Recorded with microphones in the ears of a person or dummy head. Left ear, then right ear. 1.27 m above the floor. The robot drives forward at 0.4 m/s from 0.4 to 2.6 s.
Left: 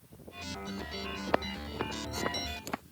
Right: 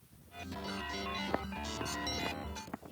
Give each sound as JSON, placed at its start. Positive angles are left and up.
{"t": 1.3, "sound": "footsteps", "side_deg": 80}